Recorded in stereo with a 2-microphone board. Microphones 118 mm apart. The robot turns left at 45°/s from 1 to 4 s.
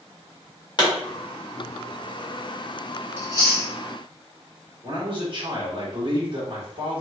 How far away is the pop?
About 1.6 m.